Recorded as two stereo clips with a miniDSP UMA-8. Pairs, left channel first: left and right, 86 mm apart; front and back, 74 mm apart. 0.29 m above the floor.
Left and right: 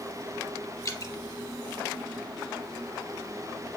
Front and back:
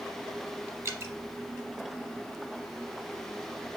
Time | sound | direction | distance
0.8 | dripping | 135° left | 0.8 m